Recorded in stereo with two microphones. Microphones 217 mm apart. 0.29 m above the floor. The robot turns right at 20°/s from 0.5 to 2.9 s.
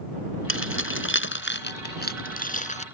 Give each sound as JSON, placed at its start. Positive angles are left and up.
{"t": 0.5, "sound": "keys jangling", "side_deg": 70}